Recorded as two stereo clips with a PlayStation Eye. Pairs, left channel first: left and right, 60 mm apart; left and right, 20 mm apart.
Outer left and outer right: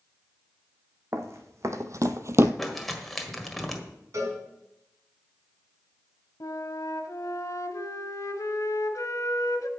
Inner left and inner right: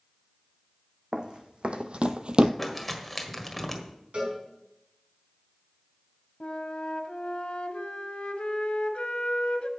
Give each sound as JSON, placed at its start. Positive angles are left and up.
{"t": 1.1, "sound": "running footsteps", "side_deg": -50, "distance_m": 1.7}
{"t": 2.6, "sound": "crumpling", "side_deg": 0, "distance_m": 1.5}
{"t": 4.1, "sound": "a cowbell", "side_deg": -60, "distance_m": 4.5}
{"t": 6.4, "sound": "a flute", "side_deg": 75, "distance_m": 1.1}